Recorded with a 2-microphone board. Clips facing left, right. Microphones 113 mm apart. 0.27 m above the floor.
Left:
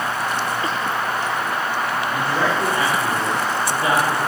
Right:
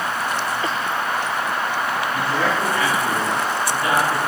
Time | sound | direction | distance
2.1 | a man speaking | 25° left (ahead or behind) | 5 m